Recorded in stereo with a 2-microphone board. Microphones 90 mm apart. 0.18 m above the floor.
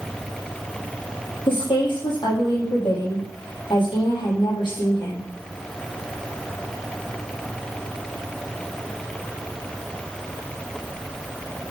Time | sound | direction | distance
1.5 | a woman speaking | 65° left (ahead or behind) | 7 m